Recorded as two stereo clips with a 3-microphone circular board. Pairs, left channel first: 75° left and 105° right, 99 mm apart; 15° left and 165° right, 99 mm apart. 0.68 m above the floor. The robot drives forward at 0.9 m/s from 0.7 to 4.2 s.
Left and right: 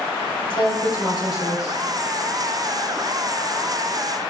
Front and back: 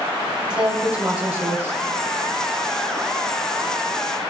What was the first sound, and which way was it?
A woman speaking, 115° left.